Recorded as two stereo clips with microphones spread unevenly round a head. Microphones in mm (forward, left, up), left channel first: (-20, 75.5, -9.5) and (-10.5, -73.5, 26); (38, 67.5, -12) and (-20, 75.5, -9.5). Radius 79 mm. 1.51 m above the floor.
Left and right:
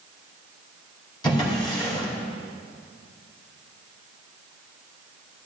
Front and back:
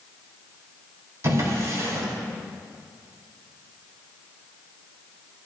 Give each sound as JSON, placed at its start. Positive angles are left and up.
{"t": 1.2, "sound": "a drawer", "azimuth_deg": 160, "distance_m": 2.5}